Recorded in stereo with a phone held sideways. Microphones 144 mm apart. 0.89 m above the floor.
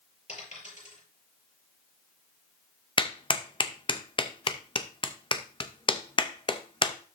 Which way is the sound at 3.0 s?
35° left (ahead or behind).